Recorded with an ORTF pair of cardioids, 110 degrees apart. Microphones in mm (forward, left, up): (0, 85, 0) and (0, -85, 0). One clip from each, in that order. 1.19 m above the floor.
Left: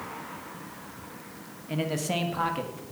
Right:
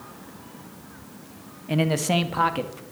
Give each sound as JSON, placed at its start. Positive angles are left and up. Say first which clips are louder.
{"t": 1.7, "sound": "a man speaking", "louder": "right 6 dB", "azimuth_deg": -35, "distance_m": 1.2}